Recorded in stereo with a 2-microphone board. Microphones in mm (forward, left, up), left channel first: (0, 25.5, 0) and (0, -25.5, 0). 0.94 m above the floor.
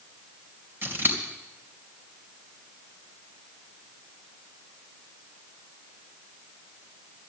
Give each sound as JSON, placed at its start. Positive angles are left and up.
{"t": 0.8, "sound": "scissors", "side_deg": -45, "distance_m": 2.5}